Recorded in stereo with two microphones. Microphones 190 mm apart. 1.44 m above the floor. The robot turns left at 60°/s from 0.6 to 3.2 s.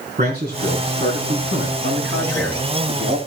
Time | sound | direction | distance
0.2 | a man speaking | 50° right | 4.5 m
1.8 | a man speaking | 60° right | 6 m